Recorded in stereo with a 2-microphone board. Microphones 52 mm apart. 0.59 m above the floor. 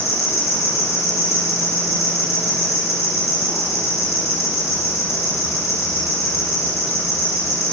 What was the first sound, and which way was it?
An insect, 85° left.